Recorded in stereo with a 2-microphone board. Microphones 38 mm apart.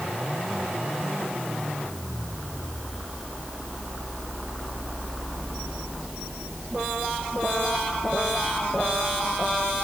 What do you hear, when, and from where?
Only background noise.